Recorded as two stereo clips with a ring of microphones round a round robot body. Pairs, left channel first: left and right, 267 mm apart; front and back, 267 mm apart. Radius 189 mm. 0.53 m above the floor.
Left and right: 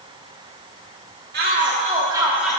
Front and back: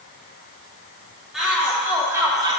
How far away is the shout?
About 1.4 m.